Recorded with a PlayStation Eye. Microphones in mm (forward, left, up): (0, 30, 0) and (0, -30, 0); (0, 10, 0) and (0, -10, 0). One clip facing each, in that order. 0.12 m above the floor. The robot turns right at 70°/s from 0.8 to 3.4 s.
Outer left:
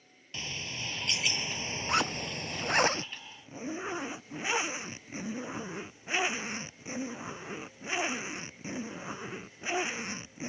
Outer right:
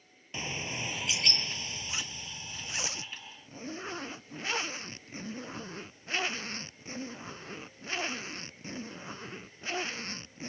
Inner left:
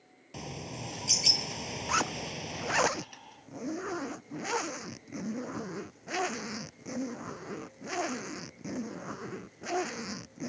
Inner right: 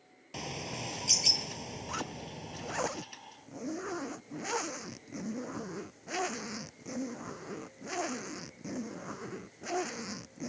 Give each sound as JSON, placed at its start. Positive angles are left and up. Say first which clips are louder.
{"t": 0.3, "sound": "a bird", "louder": "outer right 3 dB, inner right 2 dB", "azimuth_deg": -25}
{"t": 1.9, "sound": "a zipper", "louder": "outer left 10 dB, inner left 10 dB", "azimuth_deg": 60}